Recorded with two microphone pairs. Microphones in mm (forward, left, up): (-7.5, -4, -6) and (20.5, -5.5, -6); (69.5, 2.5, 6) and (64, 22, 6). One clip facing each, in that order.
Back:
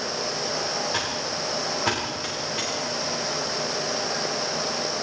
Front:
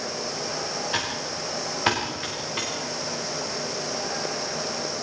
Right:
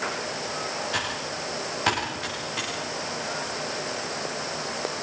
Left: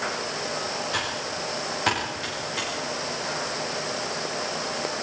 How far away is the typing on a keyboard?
About 10 m.